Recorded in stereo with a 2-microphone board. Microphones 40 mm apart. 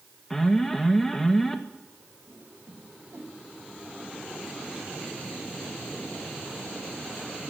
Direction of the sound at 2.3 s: 70° right (ahead or behind).